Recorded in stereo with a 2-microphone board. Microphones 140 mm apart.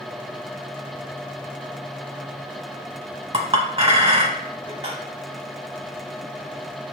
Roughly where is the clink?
Right.